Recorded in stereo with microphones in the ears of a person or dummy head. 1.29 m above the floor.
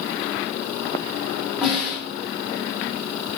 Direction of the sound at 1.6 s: 5° right (ahead or behind).